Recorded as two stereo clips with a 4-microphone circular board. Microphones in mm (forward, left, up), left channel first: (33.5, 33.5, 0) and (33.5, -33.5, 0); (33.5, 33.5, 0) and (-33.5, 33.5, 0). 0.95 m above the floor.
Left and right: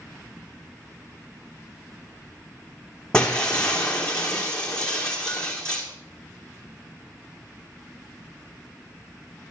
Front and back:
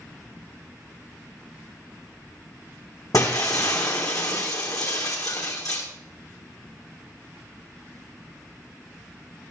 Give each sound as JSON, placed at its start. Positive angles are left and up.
{"t": 3.1, "sound": "breaking glass", "azimuth_deg": 15, "distance_m": 3.0}